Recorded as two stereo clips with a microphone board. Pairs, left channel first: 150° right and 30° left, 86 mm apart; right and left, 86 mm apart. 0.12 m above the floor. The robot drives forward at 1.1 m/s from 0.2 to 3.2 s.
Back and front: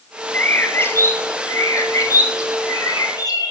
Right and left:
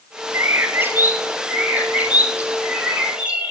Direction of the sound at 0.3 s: 145° left.